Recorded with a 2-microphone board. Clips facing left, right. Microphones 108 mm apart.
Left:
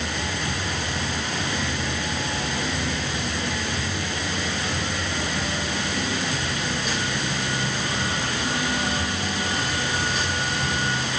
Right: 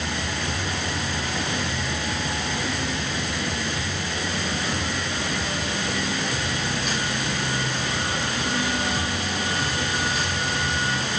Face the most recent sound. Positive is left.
No sound to turn to.